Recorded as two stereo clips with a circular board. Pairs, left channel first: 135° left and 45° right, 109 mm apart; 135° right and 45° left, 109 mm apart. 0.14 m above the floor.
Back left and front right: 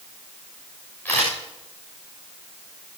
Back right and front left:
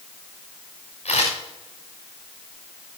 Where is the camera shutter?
150° right, 7 m.